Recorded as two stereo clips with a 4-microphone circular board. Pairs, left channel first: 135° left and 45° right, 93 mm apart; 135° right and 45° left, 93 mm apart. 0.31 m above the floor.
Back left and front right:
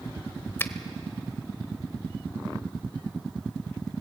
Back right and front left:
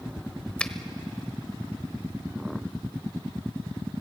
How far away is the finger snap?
About 0.9 m.